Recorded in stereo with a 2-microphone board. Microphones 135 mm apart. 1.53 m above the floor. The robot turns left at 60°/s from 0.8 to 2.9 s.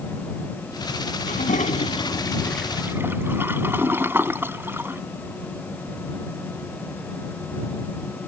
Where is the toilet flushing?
80° left; by 5.0 s 15° right.